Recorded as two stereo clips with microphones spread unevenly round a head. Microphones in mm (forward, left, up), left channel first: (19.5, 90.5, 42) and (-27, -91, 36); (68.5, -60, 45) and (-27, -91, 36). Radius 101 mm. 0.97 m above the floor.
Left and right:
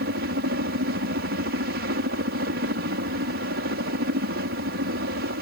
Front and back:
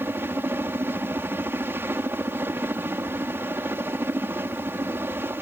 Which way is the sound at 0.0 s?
100° right.